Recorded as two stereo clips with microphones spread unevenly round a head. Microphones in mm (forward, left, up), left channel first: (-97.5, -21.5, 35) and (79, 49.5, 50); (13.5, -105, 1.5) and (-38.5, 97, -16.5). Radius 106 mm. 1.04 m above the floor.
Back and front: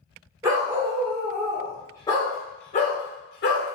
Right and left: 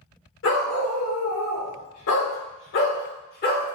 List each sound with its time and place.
0.4 s a dog barking: 50° right, 1.9 m; by 3.7 s 125° right, 1.6 m